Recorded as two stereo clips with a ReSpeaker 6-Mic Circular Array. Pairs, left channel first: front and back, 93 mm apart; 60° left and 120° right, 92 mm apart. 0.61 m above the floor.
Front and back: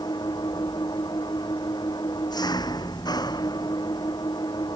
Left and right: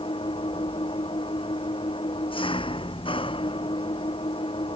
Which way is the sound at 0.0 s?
40° left.